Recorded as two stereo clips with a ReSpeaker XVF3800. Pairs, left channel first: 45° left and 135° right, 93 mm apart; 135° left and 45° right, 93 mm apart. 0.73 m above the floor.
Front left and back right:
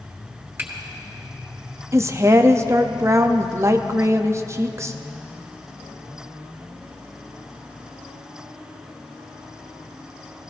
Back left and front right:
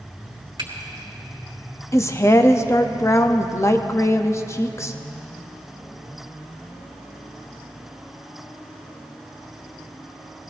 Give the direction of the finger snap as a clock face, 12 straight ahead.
2 o'clock.